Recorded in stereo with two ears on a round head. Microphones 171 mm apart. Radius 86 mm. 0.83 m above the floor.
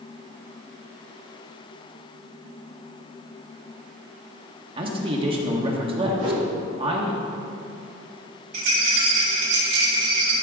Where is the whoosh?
70° right (ahead or behind), 2.5 m.